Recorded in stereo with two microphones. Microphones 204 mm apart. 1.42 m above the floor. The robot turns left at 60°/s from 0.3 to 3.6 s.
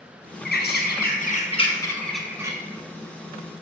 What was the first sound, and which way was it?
A bird, 105° left.